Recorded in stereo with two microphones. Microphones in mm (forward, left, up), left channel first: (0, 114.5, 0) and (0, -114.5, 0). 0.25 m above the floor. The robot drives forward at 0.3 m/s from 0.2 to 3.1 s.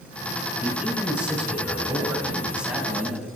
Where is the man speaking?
5° right (ahead or behind), 5.5 m.